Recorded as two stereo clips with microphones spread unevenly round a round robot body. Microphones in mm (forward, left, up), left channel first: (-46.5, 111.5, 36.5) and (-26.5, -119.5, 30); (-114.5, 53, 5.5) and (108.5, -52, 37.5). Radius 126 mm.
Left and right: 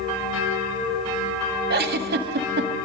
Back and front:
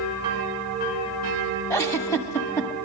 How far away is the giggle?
About 1.4 m.